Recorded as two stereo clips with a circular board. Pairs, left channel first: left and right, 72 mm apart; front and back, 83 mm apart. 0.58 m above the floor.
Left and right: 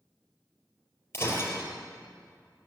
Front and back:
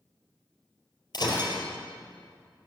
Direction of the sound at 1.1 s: 35° left.